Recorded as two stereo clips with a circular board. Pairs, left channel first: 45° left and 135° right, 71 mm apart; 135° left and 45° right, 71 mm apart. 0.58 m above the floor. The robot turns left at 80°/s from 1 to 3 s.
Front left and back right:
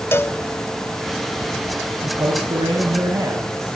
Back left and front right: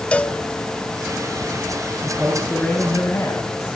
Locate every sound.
0.1 s a cowbell: 70° left, 0.7 m
2.0 s a man speaking: 100° right, 4.5 m; by 3.7 s straight behind, 4.5 m